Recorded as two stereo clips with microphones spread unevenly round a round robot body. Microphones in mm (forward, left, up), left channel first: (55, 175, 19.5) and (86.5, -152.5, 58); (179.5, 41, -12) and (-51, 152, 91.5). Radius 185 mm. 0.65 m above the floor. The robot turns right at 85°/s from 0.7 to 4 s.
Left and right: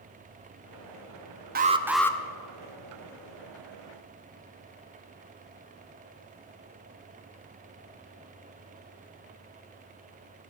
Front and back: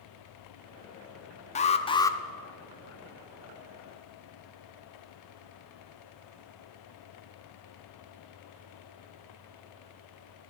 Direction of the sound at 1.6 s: 25° right.